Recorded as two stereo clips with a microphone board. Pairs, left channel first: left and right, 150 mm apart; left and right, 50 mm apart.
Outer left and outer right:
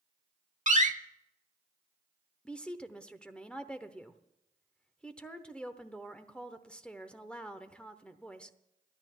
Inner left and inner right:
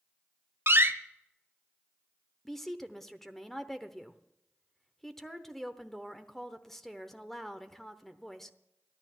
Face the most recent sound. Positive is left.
turn(degrees=5)  # may be behind; listen again after turning